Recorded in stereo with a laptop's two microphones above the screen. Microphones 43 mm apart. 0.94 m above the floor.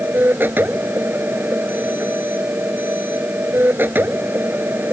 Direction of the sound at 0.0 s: 50° right (ahead or behind).